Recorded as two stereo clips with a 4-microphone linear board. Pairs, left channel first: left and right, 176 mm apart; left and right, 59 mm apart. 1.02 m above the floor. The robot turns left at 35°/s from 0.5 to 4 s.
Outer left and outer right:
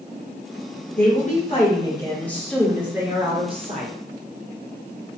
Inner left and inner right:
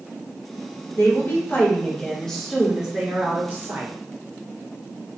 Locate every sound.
1.0 s a woman speaking: 55° left, 1.0 m; by 3.9 s 45° right, 1.0 m